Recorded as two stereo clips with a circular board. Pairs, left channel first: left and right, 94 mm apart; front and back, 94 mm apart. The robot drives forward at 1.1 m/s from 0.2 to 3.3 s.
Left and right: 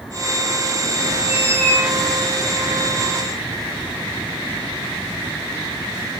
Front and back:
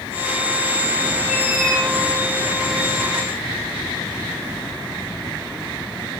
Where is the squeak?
85° left, 5.5 m; by 1.9 s 90° left, 5.5 m.